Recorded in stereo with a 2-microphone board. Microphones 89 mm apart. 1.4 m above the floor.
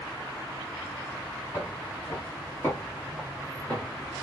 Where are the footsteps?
40° left (ahead or behind), 2.5 m; by 4.2 s centre (ahead or behind), 1.5 m.